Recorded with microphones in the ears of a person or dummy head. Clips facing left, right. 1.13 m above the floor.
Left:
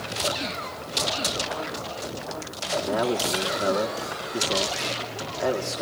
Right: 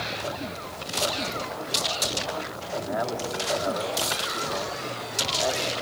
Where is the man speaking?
40° left (ahead or behind), 2.5 m.